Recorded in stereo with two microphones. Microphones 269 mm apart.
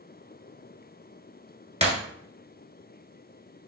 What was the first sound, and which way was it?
Breaking glass, 25° right (ahead or behind).